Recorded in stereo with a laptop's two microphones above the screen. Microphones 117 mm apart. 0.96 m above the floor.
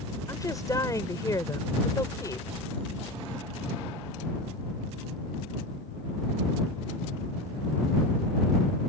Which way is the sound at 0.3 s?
30° left (ahead or behind).